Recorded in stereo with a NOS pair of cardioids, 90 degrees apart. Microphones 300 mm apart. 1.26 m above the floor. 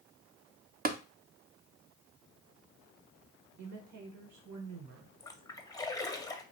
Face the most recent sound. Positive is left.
turn(degrees=10)